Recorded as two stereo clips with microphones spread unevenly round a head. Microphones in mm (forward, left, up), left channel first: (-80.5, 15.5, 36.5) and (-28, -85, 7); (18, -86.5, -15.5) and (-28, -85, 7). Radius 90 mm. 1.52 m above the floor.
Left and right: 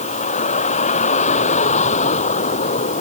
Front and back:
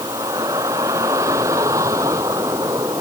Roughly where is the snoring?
No snoring in this recording.